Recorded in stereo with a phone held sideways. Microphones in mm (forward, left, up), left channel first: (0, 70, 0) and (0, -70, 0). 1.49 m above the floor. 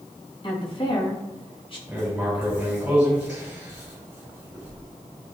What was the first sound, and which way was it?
A woman speaking, 40° left (ahead or behind).